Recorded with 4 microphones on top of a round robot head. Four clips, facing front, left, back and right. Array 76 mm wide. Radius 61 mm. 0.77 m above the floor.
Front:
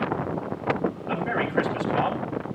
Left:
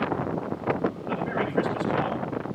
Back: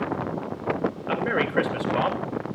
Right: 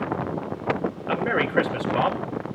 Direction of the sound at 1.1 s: 125° right.